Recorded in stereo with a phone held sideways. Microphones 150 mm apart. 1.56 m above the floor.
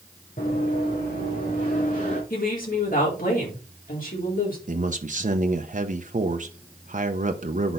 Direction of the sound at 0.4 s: 75° left (ahead or behind).